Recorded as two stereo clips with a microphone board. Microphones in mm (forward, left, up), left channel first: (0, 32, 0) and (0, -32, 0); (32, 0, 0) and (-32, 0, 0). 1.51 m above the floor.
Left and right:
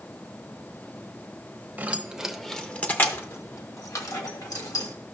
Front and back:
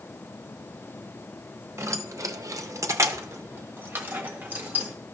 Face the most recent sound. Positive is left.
turn(degrees=115)